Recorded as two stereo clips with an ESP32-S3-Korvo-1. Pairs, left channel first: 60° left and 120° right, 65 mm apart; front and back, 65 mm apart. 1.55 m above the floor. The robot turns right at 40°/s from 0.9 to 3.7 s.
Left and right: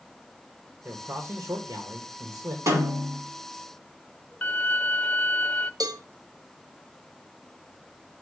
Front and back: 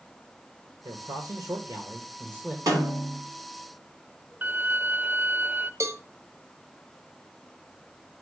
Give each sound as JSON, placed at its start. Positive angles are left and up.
{"t": 0.8, "sound": "a man speaking", "azimuth_deg": 180, "distance_m": 1.2}
{"t": 2.7, "sound": "a snare drum", "azimuth_deg": -155, "distance_m": 5.0}
{"t": 4.4, "sound": "a violin", "azimuth_deg": 125, "distance_m": 0.7}
{"t": 5.8, "sound": "a cowbell", "azimuth_deg": -135, "distance_m": 0.8}